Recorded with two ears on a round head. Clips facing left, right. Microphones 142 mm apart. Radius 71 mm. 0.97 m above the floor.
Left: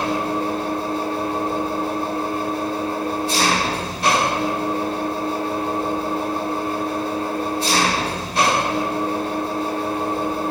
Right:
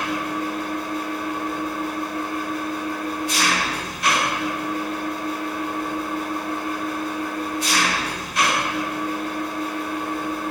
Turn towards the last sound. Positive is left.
turn(degrees=25)  # may be behind; listen again after turning